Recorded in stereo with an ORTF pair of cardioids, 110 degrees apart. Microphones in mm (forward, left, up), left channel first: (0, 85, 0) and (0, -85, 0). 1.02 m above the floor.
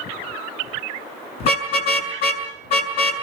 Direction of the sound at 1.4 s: 70° left.